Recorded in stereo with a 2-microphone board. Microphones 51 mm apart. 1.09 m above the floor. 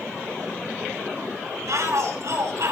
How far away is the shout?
About 7.5 m.